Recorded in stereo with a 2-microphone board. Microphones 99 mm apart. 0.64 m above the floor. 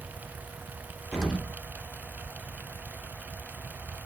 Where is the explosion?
5° right (ahead or behind), 1.0 m.